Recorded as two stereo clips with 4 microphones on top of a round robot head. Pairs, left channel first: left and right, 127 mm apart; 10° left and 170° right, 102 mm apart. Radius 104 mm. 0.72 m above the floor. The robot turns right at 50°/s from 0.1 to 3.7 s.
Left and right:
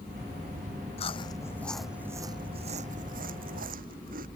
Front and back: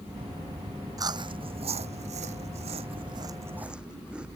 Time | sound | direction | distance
1.0 | chewing | 140° left | ?